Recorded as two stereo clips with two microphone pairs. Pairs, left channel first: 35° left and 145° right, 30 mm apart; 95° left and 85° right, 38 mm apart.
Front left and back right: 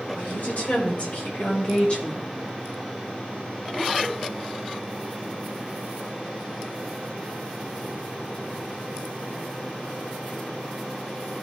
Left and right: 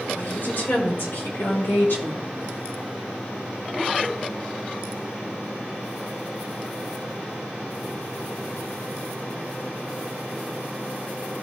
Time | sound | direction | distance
0.2 | a woman speaking | 65° left | 1.8 m